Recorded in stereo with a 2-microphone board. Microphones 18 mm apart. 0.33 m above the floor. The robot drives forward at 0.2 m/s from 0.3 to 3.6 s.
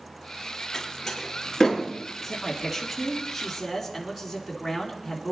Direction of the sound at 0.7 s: 10° left (ahead or behind).